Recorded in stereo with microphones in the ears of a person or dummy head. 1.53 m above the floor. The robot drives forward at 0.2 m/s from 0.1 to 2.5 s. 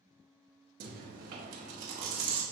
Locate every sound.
0.8 s chewing: 55° right (ahead or behind), 0.7 m; by 2.4 s 35° right (ahead or behind), 0.9 m